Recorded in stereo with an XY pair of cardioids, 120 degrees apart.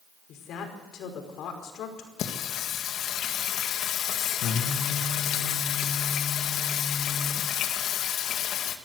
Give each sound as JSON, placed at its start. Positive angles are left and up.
{"t": 0.3, "sound": "a woman speaking", "azimuth_deg": 65, "distance_m": 5.0}
{"t": 2.2, "sound": "singing", "azimuth_deg": 70, "distance_m": 2.0}